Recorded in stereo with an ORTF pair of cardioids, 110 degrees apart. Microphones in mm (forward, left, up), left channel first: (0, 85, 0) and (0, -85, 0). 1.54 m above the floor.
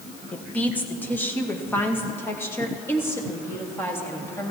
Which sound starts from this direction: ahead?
A woman speaking, at 0.3 s.